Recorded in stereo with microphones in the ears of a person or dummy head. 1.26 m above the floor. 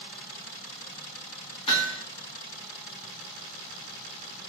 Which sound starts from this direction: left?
Hammering, at 1.7 s.